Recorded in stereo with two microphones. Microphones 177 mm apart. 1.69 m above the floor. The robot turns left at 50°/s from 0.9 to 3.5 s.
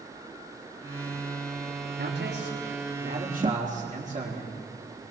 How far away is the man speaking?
About 4.5 m.